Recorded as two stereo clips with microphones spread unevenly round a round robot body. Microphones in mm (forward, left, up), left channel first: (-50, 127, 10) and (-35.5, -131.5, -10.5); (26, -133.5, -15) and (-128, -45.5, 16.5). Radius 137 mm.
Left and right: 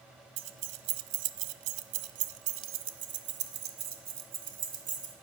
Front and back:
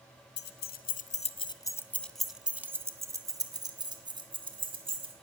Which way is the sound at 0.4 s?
40° right.